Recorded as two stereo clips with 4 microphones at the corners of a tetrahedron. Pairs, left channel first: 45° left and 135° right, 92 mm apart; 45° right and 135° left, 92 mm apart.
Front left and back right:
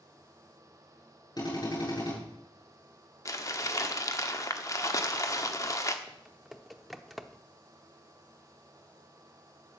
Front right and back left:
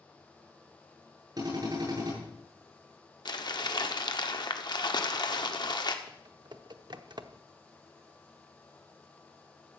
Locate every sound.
1.4 s a drill: 90° left, 9 m
3.2 s crumpling: 10° right, 1.3 m
6.1 s typing on a keyboard: 135° left, 0.8 m